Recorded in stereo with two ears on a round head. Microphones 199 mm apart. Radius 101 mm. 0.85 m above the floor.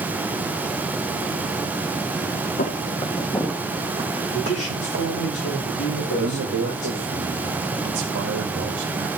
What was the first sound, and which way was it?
Footsteps, 35° left (ahead or behind).